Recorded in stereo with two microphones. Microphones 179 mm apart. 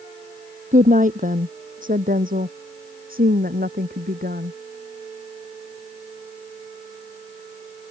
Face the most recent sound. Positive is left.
turn(degrees=-55)  # may be behind; listen again after turning